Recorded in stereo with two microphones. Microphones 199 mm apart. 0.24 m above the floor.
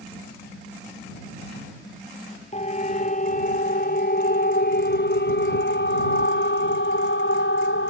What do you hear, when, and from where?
2.5 s a siren: 35° left (ahead or behind); by 7.9 s 65° left (ahead or behind)